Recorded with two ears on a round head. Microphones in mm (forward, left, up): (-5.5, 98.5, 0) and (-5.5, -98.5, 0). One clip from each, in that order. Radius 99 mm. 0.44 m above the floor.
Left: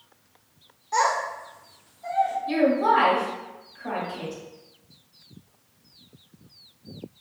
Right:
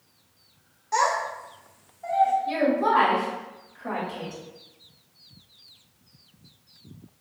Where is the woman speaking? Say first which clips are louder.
Left 2 dB; centre (ahead or behind), 1.5 m.